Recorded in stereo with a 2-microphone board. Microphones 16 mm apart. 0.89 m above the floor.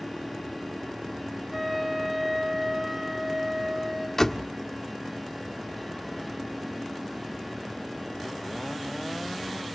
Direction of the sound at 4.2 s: 30° left (ahead or behind).